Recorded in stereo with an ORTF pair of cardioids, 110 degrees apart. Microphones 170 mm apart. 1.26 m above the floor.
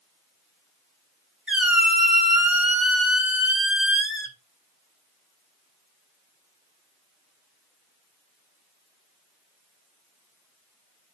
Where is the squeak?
5° right, 0.9 m.